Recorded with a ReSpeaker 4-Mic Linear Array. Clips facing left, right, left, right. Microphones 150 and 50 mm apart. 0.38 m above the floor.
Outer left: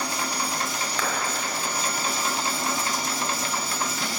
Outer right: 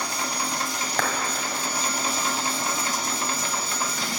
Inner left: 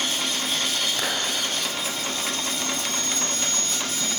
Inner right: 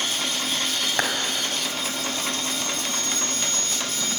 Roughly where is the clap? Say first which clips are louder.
Outer right 3 dB, inner right 7 dB; right.